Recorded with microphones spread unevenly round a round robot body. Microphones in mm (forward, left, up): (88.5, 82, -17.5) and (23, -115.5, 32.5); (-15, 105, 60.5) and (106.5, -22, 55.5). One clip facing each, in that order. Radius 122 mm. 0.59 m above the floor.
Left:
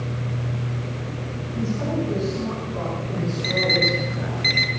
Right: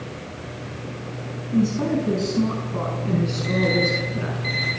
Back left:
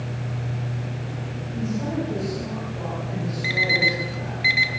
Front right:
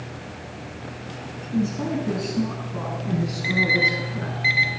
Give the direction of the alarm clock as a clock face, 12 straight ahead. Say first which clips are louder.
Right 1 dB, front right 1 dB; 9 o'clock.